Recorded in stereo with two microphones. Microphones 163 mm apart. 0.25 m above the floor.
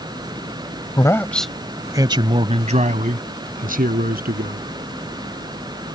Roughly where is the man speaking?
Left.